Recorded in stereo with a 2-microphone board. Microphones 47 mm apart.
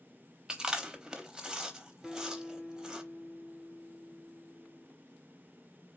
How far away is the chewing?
About 0.7 m.